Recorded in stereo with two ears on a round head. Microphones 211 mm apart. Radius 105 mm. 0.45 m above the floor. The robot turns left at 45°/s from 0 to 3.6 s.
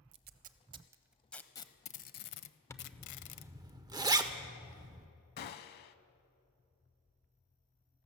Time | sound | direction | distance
0.1 | tape being pulled | 50° right (ahead or behind) | 0.6 m
2.7 | a zipper | 10° left (ahead or behind) | 0.6 m
5.4 | a gunshot | 45° left (ahead or behind) | 0.6 m